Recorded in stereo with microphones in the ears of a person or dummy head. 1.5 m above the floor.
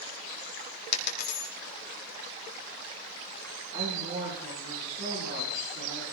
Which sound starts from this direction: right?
A woman speaking, at 3.7 s.